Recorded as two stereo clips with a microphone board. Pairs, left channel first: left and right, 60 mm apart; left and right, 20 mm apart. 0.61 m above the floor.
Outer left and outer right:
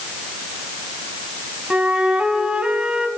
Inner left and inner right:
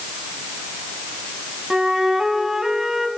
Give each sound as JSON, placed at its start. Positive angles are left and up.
{"t": 1.7, "sound": "a flute", "side_deg": -15, "distance_m": 1.3}